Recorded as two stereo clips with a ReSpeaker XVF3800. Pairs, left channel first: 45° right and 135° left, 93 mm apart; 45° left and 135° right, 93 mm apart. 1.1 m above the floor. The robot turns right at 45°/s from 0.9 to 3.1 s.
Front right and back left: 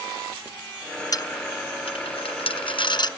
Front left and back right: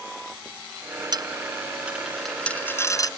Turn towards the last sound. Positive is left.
turn(degrees=-5)